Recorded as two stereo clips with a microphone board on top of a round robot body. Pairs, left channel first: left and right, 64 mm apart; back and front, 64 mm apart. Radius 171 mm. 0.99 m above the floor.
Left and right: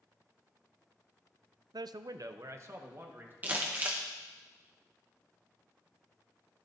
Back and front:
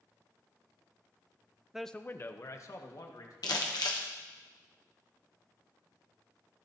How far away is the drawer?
I don't hear a drawer.